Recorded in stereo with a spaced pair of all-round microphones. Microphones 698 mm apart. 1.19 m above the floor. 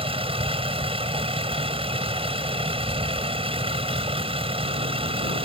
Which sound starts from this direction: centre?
A vehicle, at 0.0 s.